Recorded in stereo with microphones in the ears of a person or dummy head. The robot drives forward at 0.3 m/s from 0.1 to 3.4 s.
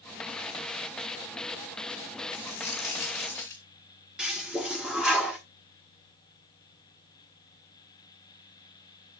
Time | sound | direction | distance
2.3 | a dropped coin | 25° left (ahead or behind) | 2.5 m
4.2 | a toilet flushing | centre (ahead or behind) | 1.2 m